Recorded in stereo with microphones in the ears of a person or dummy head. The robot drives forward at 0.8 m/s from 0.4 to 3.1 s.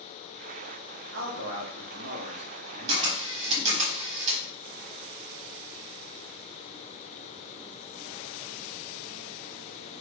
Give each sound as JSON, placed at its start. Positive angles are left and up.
{"t": 1.1, "sound": "a man speaking", "side_deg": -80, "distance_m": 1.8}
{"t": 2.9, "sound": "a camera shutter", "side_deg": -35, "distance_m": 1.3}